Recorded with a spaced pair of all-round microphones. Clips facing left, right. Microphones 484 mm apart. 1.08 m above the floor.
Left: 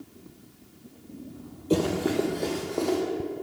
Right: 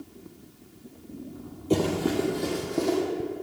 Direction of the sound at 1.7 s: Centre (ahead or behind).